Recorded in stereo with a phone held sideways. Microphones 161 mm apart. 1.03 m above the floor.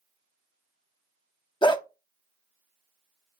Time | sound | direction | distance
1.6 | a dog barking | 30° left (ahead or behind) | 0.6 m